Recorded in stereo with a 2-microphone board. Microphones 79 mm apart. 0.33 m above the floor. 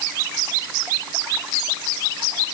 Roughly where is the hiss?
No hiss in this recording.